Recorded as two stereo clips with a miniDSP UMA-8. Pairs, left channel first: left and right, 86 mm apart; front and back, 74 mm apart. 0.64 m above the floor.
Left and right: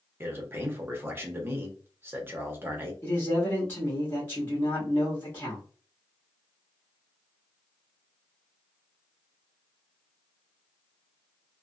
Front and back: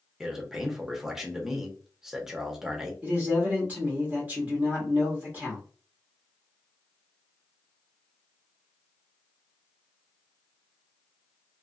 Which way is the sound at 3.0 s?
140° left.